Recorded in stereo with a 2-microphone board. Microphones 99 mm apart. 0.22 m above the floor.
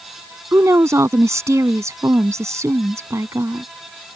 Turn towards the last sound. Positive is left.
turn(degrees=-30)  # may be behind; listen again after turning